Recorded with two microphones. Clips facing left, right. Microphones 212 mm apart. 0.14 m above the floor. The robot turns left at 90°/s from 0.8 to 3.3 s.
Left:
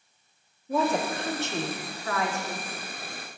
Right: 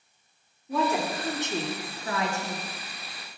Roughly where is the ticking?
I don't hear ticking.